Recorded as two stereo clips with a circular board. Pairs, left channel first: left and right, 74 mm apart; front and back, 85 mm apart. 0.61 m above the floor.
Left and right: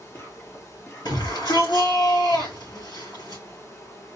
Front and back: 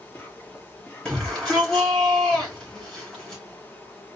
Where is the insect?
60° left, 1.6 m.